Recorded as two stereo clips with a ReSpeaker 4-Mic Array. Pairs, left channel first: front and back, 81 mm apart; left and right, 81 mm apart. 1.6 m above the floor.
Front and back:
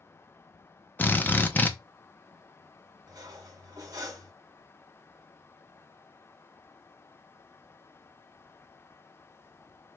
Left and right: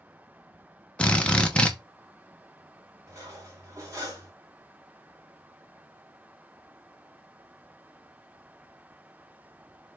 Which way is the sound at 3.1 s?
140° right.